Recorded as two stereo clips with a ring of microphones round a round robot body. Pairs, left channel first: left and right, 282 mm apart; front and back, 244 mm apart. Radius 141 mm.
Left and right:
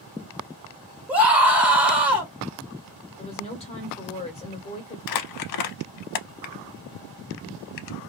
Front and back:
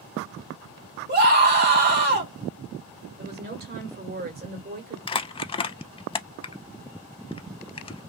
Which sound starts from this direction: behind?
A scream, at 1.1 s.